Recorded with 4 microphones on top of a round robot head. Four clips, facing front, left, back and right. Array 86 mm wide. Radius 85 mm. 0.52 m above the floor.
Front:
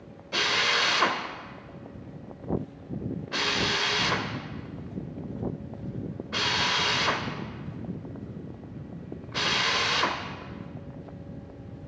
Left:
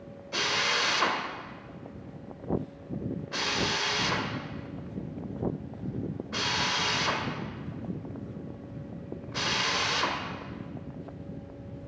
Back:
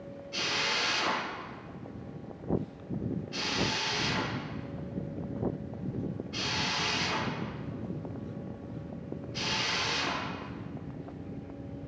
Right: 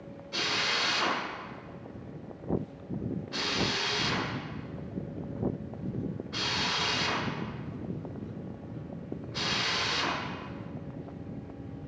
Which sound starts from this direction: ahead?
A drill, at 0.3 s.